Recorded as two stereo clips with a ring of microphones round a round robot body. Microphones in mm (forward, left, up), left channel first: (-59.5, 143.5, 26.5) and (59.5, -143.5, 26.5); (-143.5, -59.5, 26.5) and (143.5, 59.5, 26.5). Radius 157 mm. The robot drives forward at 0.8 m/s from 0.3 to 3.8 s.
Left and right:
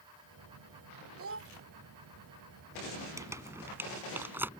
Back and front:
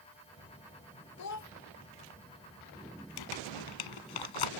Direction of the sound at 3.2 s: 150° right.